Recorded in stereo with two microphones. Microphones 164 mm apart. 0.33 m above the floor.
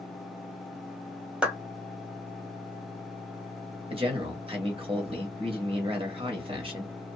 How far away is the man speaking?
About 1.4 m.